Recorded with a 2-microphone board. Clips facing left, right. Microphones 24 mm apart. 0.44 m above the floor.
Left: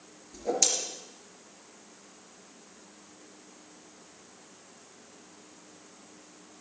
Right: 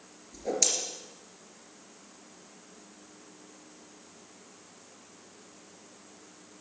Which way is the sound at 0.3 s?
5° left (ahead or behind).